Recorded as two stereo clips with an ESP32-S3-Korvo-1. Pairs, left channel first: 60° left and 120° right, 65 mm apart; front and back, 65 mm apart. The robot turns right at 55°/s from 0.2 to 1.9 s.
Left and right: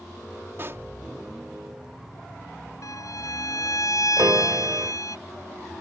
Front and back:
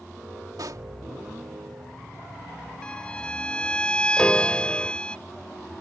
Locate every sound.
0.6 s a pop: 175° right; by 0.9 s 160° right
2.8 s a violin: 75° left
4.2 s a piano: 80° right